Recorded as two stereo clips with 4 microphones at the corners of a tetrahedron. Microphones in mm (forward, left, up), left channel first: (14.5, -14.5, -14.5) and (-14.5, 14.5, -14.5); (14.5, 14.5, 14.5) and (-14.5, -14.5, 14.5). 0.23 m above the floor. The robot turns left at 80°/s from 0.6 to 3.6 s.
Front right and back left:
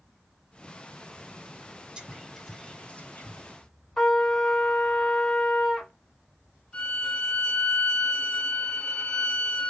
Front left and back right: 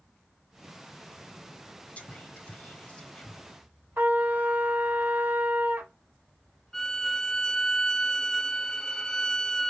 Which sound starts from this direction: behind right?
A trumpet, at 4.0 s.